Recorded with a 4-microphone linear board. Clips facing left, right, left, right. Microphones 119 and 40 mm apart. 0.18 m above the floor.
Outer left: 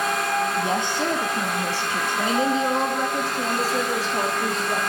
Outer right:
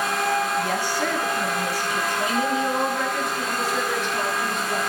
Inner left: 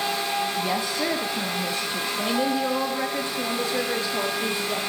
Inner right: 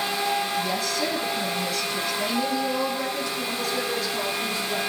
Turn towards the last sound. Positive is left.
turn(degrees=35)  # may be behind; listen again after turning